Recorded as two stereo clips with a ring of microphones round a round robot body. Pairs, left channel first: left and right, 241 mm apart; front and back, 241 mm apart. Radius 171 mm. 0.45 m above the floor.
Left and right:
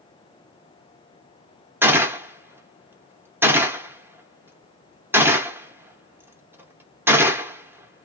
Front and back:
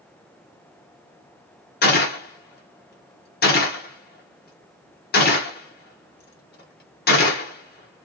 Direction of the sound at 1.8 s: 15° right.